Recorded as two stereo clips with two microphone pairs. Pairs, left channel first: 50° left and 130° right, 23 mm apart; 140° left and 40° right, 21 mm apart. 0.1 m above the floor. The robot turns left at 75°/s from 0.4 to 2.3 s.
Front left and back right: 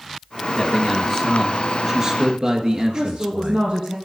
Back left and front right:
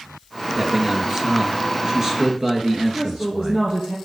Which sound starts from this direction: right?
A woman speaking, at 2.9 s.